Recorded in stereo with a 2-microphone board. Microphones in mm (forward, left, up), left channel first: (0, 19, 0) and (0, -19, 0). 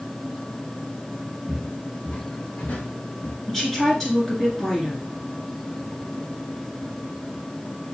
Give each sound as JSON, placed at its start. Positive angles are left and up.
{"t": 1.5, "sound": "footsteps", "side_deg": 20, "distance_m": 1.4}
{"t": 3.5, "sound": "a woman speaking", "side_deg": 10, "distance_m": 1.7}